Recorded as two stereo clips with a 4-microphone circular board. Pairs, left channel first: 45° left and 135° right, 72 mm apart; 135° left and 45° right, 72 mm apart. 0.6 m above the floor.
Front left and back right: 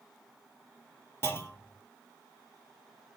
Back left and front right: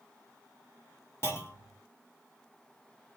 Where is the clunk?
90° left, 1.4 m.